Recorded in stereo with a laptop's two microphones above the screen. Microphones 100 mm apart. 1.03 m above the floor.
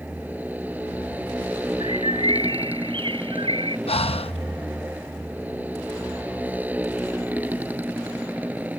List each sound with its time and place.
0.0 s a motorcycle: 15° right (ahead or behind)
1.8 s a bird: 55° right (ahead or behind)
3.9 s breathing: 70° left (ahead or behind)